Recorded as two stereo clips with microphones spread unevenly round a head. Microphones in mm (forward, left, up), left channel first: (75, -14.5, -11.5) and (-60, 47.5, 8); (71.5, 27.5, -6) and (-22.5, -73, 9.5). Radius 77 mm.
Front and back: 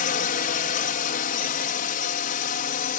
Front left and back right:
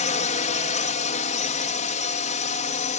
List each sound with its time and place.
0.0 s a drone: 10° left